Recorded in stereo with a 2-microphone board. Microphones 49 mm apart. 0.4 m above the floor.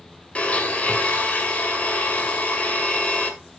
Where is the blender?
25° left (ahead or behind), 1.8 m.